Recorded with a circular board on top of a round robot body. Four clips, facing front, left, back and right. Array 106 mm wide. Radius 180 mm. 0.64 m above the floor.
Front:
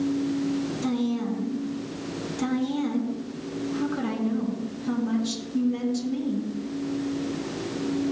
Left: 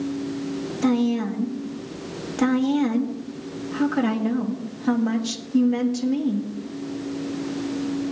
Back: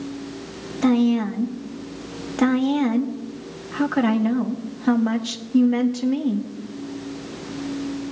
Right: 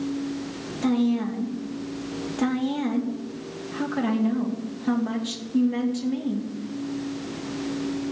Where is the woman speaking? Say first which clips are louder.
Left 1 dB, back 12 dB; 160° left, 1.7 m.